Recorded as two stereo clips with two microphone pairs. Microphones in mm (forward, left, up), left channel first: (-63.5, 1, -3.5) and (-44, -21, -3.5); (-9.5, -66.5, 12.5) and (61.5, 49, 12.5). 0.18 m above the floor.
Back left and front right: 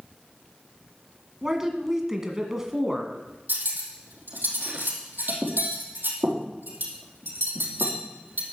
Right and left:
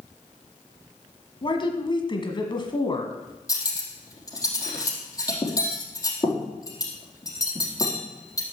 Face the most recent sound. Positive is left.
turn(degrees=-60)